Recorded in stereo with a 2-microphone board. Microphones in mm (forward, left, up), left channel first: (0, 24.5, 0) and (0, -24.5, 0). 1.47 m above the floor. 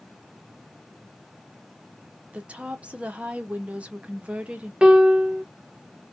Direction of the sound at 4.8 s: 20° right (ahead or behind).